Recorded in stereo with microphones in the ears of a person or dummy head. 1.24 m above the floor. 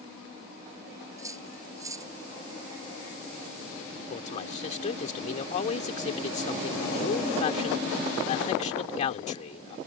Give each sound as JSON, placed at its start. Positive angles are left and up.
{"t": 1.2, "sound": "cutlery clinking", "side_deg": -15}
{"t": 4.1, "sound": "a man speaking", "side_deg": 40}